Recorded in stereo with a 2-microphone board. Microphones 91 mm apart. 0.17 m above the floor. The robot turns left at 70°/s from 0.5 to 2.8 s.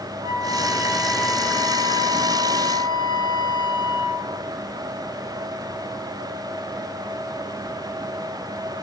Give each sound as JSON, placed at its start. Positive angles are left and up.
{"t": 0.2, "sound": "a flute", "azimuth_deg": -130, "distance_m": 2.0}